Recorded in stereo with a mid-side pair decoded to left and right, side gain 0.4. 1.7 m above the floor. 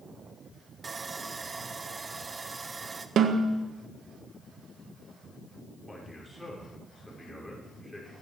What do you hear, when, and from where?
0.8 s sawing: 35° right, 1.1 m
3.2 s a snare drum: 65° right, 1.5 m
5.9 s a man speaking: 5° left, 6 m